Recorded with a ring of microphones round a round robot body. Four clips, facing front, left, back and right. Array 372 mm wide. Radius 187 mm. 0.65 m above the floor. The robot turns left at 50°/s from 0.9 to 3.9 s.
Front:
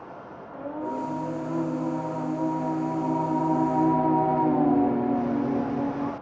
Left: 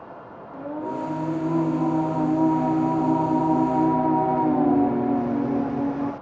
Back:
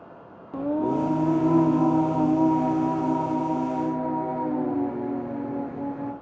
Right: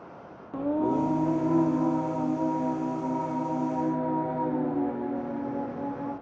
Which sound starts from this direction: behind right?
Singing, at 0.5 s.